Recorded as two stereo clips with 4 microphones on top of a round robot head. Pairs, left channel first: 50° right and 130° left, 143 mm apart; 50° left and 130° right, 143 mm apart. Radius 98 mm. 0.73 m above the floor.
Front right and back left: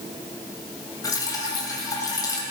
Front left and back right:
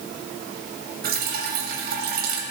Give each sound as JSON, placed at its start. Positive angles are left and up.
{"t": 1.0, "sound": "dripping", "azimuth_deg": -115, "distance_m": 3.0}